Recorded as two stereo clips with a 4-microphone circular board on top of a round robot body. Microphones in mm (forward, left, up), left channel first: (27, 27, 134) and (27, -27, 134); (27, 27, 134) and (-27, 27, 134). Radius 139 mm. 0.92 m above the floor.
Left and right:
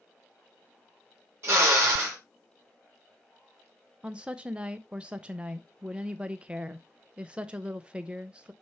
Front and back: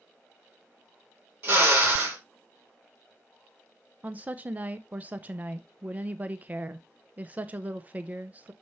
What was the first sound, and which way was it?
A drill, 130° right.